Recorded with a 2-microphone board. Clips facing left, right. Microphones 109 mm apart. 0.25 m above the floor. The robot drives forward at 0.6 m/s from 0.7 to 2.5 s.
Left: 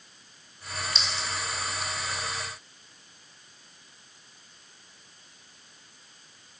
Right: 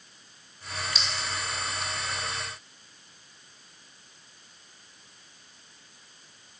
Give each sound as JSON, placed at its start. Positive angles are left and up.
{"t": 0.9, "sound": "a clink", "side_deg": -5, "distance_m": 1.2}